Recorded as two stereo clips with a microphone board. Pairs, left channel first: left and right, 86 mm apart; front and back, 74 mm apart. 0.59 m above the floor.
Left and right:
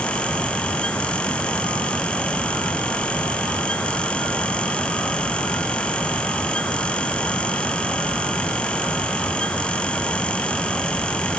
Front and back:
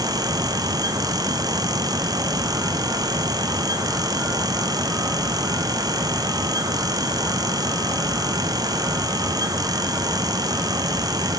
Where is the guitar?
I don't hear a guitar.